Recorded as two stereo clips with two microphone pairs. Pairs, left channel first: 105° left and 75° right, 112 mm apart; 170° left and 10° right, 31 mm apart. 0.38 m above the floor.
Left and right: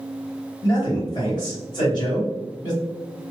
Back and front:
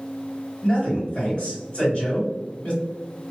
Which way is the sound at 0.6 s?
145° left.